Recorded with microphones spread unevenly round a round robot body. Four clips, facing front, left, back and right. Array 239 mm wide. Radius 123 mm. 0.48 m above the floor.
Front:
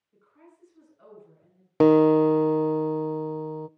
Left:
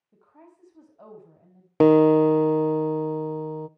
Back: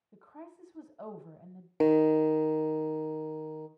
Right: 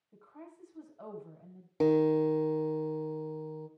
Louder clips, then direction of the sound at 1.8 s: Left 10 dB, front 6 dB; 55° left.